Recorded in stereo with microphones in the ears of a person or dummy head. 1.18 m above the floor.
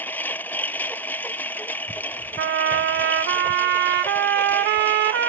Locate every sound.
0.0 s a lawn mower: 10° left (ahead or behind)
2.4 s a trumpet: 55° right (ahead or behind)